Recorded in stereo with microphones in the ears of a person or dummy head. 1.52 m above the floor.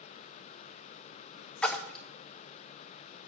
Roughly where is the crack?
I don't hear a crack.